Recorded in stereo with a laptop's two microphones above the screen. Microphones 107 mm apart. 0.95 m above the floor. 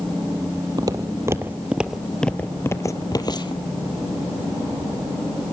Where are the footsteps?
35° right (ahead or behind), 1.2 m; by 3.6 s 45° left (ahead or behind), 1.3 m.